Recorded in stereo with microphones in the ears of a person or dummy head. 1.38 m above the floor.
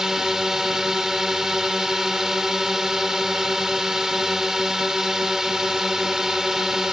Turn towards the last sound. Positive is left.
turn(degrees=-5)  # may be behind; listen again after turning